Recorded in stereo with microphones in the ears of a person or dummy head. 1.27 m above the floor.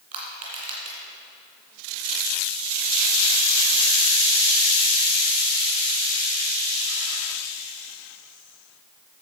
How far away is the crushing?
About 2 m.